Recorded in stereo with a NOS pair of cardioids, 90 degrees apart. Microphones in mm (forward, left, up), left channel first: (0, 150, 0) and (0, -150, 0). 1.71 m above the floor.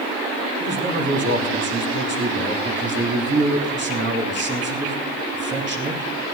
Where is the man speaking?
40° right, 3 m.